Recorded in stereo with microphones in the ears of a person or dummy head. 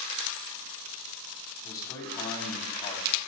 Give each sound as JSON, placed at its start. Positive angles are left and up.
{"t": 1.6, "sound": "a man speaking", "side_deg": 15, "distance_m": 3.5}